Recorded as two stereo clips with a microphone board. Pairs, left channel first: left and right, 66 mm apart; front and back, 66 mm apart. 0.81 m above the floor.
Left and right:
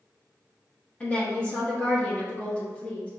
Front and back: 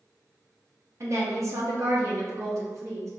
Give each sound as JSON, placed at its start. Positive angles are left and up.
{"t": 1.0, "sound": "a woman speaking", "azimuth_deg": 160, "distance_m": 0.9}